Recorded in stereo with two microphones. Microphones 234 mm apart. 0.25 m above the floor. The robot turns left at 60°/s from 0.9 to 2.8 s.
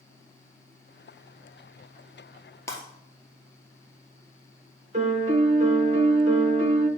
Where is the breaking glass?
10° left (ahead or behind), 1.5 m; by 2.8 s 20° left (ahead or behind), 1.5 m.